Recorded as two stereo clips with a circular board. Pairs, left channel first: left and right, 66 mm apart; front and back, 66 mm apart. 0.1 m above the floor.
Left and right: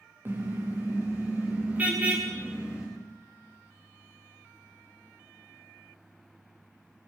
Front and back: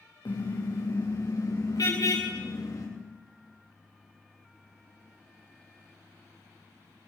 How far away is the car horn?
About 6.5 m.